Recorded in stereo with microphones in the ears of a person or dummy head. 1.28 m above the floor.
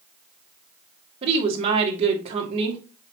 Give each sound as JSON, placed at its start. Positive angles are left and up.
{"t": 1.2, "sound": "a woman speaking", "side_deg": -40, "distance_m": 2.5}